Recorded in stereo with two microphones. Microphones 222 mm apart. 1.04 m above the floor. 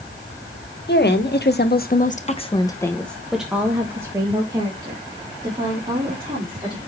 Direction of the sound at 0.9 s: 50° left (ahead or behind).